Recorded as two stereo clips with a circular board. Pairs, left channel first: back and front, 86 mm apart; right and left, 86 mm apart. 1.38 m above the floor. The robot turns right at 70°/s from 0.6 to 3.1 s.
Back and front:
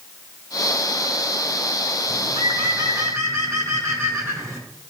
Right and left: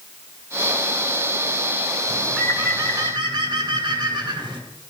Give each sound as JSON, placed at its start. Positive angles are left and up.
{"t": 2.1, "sound": "a bird", "azimuth_deg": -10, "distance_m": 1.8}